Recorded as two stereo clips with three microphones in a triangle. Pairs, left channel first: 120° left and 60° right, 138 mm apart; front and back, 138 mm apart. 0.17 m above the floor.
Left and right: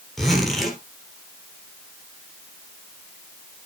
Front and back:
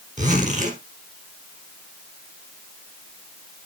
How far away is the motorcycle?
No motorcycle in this recording.